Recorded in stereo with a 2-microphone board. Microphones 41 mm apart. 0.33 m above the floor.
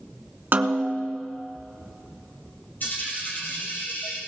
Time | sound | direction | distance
0.5 | a snare drum | 50° right (ahead or behind) | 0.9 m
2.8 | a dropped coin | 50° left (ahead or behind) | 4 m